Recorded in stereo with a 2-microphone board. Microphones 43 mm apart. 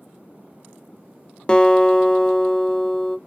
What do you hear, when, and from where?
1.5 s a guitar: 20° left (ahead or behind), 0.5 m